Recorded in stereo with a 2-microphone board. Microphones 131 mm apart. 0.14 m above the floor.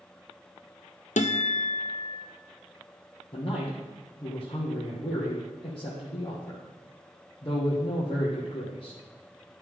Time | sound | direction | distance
1.2 | a guitar | 65° left (ahead or behind) | 0.8 m
3.3 | a man speaking | 35° left (ahead or behind) | 2.5 m